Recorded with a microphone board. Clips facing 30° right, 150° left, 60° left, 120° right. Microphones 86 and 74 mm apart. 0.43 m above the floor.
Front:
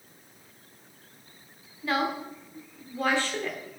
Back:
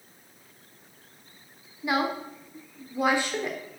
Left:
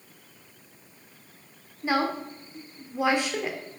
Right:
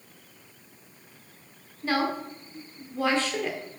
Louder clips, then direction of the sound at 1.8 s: Back 1 dB, left 1 dB; 110° left.